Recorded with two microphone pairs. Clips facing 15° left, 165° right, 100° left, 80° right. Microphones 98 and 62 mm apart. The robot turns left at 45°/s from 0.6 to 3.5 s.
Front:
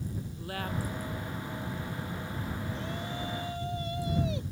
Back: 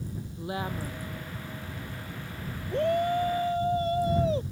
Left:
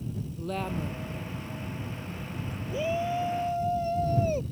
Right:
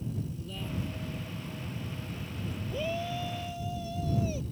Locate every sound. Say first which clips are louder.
0.4 s a woman speaking: back 3 dB, left 6 dB; 125° left; by 1.0 s 105° left
2.7 s a shout: back 12 dB, left 6 dB; straight behind; by 4.4 s 145° left